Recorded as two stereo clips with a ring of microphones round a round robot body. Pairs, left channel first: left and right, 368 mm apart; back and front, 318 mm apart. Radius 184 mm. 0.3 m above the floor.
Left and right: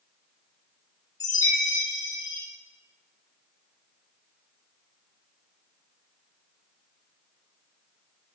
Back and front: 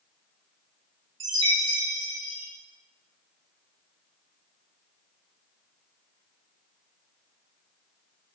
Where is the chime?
10° left, 4.5 m.